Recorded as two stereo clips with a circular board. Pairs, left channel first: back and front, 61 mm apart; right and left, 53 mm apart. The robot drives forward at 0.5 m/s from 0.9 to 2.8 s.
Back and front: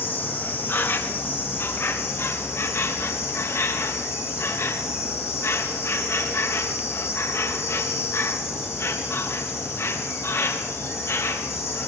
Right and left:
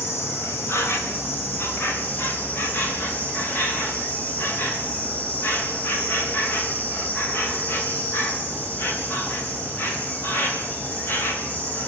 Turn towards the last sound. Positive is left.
turn(degrees=-140)